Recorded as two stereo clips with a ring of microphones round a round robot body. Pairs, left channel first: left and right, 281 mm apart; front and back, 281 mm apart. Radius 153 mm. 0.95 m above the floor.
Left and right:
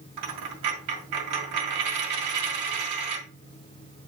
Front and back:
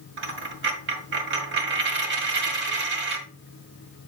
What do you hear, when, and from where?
0.2 s a dropped coin: 130° right, 2.0 m